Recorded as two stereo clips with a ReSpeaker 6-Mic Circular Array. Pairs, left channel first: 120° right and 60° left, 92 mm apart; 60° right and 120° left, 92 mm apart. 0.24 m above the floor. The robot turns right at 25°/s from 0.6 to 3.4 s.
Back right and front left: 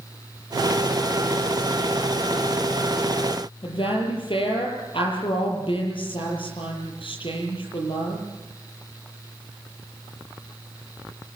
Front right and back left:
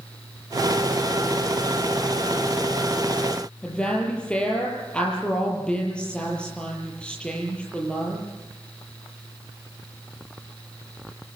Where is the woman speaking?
140° right, 7.5 m.